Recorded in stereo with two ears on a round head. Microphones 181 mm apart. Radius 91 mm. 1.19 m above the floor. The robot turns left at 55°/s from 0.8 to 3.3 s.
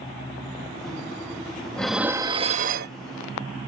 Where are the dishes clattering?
5° left; by 3.0 s 60° right.